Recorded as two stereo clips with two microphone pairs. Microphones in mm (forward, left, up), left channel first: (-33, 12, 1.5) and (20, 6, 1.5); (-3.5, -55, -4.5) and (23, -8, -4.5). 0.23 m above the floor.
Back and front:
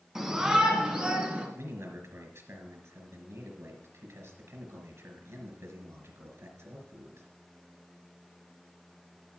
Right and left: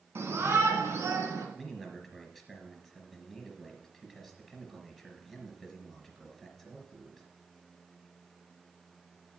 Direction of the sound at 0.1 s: 75° left.